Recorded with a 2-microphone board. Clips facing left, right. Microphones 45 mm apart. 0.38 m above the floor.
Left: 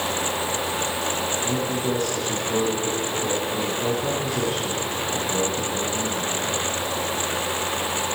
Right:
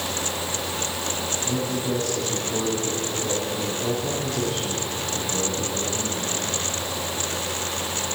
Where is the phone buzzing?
I don't hear a phone buzzing.